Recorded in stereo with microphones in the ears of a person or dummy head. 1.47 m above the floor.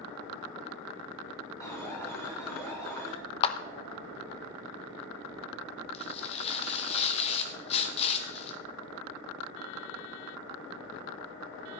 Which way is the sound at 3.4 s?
35° left (ahead or behind).